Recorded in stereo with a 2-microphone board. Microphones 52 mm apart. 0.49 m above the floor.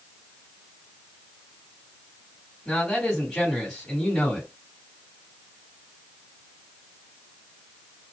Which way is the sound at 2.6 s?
15° left (ahead or behind).